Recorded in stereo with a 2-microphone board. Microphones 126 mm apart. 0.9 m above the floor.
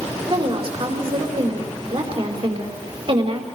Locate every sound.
0.3 s a woman speaking: 45° right (ahead or behind), 4 m